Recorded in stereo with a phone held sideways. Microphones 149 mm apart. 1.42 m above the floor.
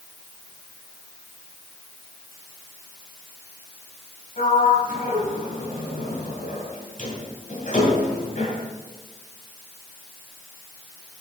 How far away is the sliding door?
About 2.5 m.